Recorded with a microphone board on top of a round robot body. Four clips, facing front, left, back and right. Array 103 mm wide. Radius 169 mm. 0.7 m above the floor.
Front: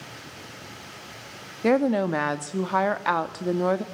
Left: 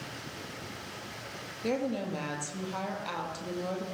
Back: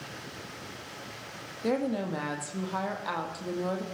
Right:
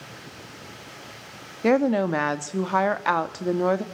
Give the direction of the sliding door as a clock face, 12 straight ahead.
No sliding door in this recording.